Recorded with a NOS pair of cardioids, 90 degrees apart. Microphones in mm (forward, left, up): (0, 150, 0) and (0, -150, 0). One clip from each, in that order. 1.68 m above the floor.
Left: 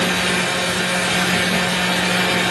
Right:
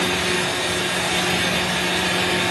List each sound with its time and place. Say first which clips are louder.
0.0 s a fan: left 2 dB; 35° left, 1.2 m